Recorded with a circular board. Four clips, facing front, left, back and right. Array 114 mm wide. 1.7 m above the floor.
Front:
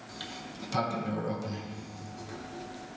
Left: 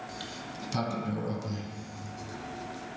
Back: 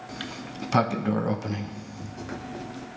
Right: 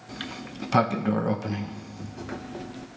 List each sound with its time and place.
0.1 s a sliding door: 125° right, 0.6 m